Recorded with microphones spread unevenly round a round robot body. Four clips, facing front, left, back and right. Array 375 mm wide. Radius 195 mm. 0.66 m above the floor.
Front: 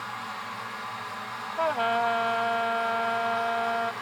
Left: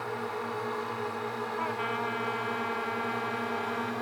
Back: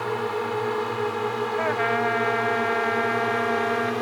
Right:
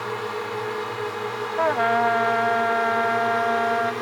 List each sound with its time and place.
0.0 s a drone: 155° right; by 4.0 s 165° right
1.6 s a trumpet: 95° right